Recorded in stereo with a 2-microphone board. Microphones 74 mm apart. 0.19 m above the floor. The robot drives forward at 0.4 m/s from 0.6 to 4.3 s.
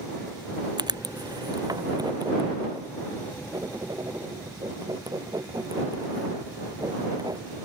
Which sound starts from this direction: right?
Writing, at 0.8 s.